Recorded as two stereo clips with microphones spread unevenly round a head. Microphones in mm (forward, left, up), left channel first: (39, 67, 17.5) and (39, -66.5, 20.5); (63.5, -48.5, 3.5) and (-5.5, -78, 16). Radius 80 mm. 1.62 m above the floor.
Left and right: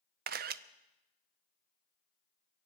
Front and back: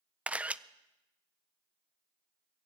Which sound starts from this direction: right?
A camera shutter, at 0.3 s.